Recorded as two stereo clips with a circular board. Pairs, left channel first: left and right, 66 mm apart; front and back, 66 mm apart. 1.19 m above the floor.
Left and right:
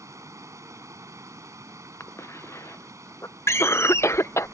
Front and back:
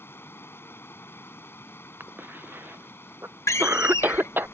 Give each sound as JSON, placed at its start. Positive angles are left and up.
{"t": 0.0, "sound": "running water", "azimuth_deg": -55}
{"t": 2.0, "sound": "a cough", "azimuth_deg": 125}
{"t": 3.5, "sound": "a door slam", "azimuth_deg": 45}